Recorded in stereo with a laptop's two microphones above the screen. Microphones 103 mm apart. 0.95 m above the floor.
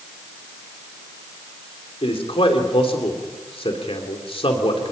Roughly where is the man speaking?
Left.